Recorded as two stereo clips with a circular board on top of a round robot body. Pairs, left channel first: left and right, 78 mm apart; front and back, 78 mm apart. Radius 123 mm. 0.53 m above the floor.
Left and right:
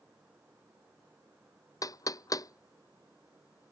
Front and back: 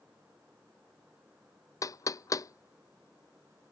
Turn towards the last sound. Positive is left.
turn(degrees=45)